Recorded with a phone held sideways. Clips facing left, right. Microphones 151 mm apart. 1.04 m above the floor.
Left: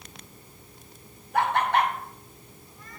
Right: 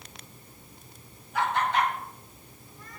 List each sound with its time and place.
1.3 s laughter: 55° left (ahead or behind), 3.5 m